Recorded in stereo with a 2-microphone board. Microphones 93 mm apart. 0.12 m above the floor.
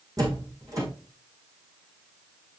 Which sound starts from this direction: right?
A door slam, at 0.2 s.